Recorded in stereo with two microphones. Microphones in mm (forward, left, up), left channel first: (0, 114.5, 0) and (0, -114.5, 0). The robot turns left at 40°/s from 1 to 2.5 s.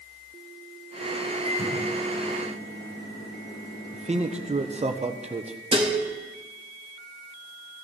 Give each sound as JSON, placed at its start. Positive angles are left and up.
{"t": 1.4, "sound": "a microwave", "azimuth_deg": 165, "distance_m": 4.5}
{"t": 3.9, "sound": "a man speaking", "side_deg": -30, "distance_m": 1.0}
{"t": 5.7, "sound": "dishes clattering", "side_deg": -25, "distance_m": 1.2}